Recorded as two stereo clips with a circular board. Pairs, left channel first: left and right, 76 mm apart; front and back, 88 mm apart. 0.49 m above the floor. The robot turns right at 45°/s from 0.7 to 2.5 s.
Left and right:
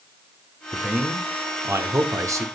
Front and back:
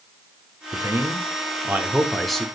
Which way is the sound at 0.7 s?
160° right.